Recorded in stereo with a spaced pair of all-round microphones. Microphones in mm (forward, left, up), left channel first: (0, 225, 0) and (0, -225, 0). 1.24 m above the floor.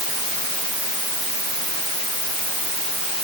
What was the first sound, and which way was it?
Only background noise.